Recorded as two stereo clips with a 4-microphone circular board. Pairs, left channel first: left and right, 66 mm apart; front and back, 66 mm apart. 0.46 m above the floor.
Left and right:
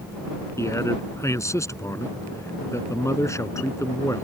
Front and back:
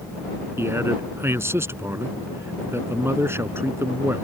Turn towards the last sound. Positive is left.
turn(degrees=130)